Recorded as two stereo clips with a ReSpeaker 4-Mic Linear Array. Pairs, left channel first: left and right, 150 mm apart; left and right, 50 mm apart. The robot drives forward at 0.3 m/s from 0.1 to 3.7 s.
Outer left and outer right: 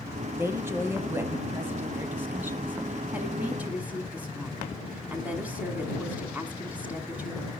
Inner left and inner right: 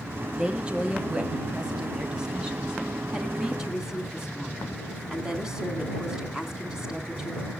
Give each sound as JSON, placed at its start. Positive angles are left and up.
{"t": 0.3, "sound": "a woman speaking", "side_deg": -15, "distance_m": 1.0}